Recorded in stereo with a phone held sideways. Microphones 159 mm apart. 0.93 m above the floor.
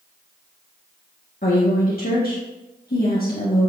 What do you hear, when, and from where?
1.4 s a woman speaking: 70° left (ahead or behind), 1.8 m